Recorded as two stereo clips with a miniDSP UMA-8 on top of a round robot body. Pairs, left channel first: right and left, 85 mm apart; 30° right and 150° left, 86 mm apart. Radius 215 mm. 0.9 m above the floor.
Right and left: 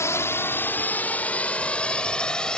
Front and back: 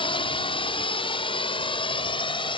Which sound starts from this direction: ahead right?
A drone, at 0.0 s.